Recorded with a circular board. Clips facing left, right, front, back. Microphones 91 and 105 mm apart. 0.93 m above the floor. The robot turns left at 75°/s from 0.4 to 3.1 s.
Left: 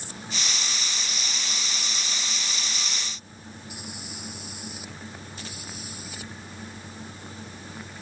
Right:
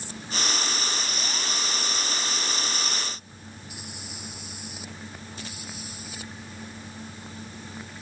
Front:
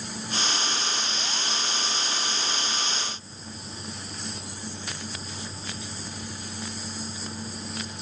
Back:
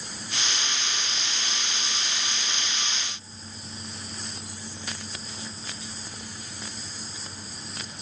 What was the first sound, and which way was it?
Only background noise.